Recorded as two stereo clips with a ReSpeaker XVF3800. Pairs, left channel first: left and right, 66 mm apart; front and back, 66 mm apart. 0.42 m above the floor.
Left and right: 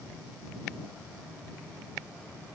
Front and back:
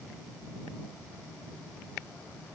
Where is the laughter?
I don't hear laughter.